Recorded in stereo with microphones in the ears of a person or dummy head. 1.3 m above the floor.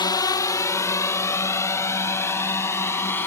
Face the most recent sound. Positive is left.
turn(degrees=10)  # may be behind; listen again after turning